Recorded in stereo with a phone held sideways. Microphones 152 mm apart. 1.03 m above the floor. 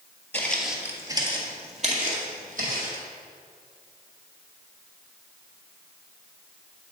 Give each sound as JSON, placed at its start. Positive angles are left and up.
{"t": 0.3, "sound": "footsteps", "side_deg": 15, "distance_m": 1.2}